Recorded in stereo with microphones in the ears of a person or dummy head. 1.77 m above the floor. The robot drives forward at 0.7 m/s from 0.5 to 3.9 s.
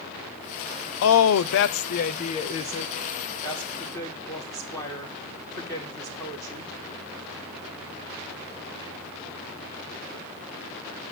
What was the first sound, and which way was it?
A woman speaking, 75° left (ahead or behind).